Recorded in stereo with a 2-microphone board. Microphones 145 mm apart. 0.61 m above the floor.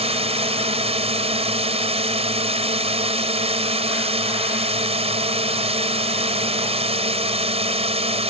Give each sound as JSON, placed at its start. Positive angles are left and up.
{"t": 0.0, "sound": "a drone", "side_deg": -40}